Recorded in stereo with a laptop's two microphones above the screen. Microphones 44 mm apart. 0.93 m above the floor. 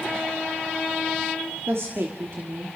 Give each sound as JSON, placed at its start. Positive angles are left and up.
{"t": 1.7, "sound": "a woman speaking", "side_deg": -70, "distance_m": 2.5}